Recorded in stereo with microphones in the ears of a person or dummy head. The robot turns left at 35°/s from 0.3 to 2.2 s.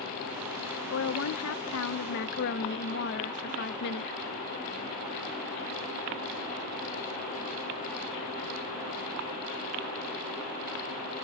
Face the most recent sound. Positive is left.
turn(degrees=65)